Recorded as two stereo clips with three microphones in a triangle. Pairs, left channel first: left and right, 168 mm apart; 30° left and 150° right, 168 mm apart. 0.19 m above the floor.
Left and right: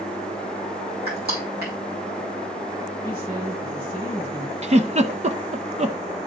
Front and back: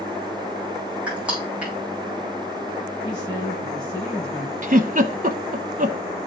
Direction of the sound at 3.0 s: 35° right.